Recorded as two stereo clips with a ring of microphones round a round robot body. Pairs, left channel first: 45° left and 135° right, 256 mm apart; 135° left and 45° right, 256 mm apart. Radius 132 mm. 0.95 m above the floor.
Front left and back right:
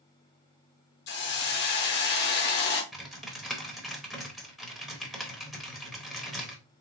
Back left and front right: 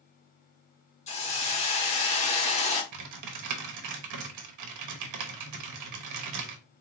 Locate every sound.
1.1 s a hiss: 80° left, 0.7 m
2.9 s typing on a keyboard: 45° right, 0.9 m